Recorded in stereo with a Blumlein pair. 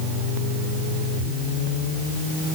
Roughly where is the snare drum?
No snare drum in this recording.